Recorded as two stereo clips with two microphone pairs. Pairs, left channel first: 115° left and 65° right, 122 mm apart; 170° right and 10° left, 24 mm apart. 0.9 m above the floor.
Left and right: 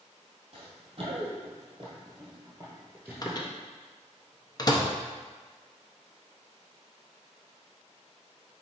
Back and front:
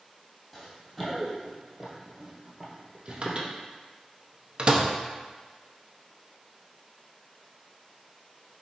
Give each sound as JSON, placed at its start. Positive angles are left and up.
{"t": 0.5, "sound": "running footsteps", "azimuth_deg": -100, "distance_m": 1.7}
{"t": 3.2, "sound": "a microwave", "azimuth_deg": 60, "distance_m": 0.6}